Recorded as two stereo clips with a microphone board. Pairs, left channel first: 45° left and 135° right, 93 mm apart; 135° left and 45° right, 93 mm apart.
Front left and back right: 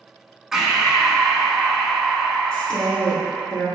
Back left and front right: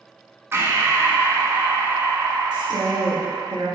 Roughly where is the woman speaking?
Ahead right.